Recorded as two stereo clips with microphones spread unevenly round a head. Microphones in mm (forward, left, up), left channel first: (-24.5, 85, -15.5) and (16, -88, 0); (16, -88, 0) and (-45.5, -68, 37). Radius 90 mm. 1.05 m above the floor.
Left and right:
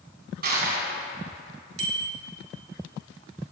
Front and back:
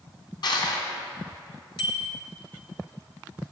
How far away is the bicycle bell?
About 2.5 m.